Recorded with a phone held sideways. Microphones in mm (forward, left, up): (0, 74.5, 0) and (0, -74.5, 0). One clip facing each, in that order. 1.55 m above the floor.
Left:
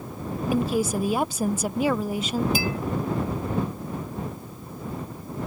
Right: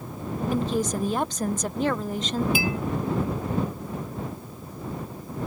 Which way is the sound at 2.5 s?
40° left (ahead or behind).